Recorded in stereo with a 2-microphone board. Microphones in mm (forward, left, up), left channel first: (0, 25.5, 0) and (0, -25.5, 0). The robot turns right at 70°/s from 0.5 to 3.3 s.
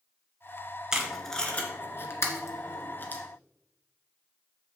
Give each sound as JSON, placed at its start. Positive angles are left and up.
{"t": 0.9, "sound": "tape being pulled", "side_deg": -15, "distance_m": 1.7}